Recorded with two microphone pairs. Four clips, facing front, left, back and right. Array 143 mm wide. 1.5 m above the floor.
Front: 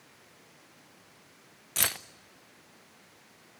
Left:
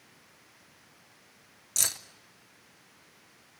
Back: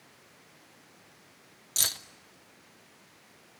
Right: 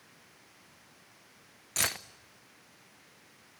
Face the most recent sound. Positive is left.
turn(degrees=-45)